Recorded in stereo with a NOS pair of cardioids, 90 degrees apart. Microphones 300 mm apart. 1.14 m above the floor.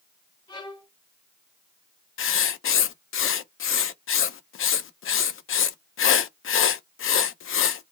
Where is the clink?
No clink in this recording.